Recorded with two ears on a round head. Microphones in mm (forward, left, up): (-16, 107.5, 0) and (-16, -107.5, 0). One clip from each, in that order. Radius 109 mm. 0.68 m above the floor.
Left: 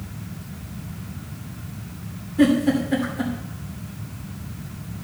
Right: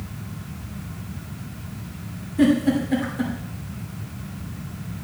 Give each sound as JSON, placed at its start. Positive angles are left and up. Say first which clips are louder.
{"t": 2.4, "sound": "a giggle", "louder": "left 1 dB", "side_deg": -5, "distance_m": 2.5}